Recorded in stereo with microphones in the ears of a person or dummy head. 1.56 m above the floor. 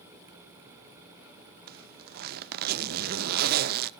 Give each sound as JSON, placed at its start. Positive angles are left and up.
{"t": 1.7, "sound": "a zipper", "side_deg": -50, "distance_m": 0.6}